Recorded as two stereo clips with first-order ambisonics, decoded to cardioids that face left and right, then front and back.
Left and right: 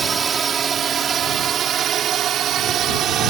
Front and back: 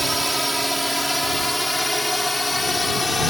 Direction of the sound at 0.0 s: 100° right.